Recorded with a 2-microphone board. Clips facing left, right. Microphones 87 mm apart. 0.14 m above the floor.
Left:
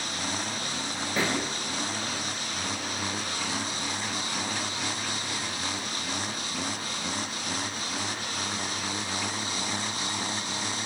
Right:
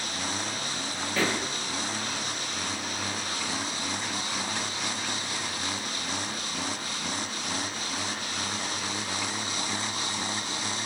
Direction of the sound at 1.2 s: 20° left (ahead or behind).